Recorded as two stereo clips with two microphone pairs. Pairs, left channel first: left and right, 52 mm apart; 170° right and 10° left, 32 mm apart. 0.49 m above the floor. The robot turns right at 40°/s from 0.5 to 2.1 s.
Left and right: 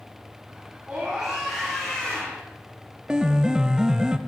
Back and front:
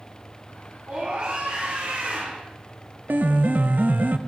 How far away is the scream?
About 4 m.